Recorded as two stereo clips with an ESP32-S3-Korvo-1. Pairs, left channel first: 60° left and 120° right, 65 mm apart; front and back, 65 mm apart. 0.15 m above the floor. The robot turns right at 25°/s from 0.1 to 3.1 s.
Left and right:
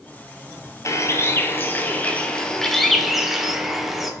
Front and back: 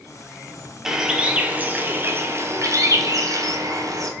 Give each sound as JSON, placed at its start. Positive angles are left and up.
{"t": 0.8, "sound": "a bird", "azimuth_deg": 100, "distance_m": 0.6}